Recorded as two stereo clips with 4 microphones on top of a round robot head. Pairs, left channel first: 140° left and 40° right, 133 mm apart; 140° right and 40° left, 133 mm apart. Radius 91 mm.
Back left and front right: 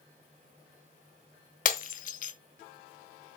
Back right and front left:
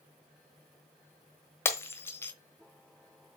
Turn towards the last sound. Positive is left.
turn(degrees=150)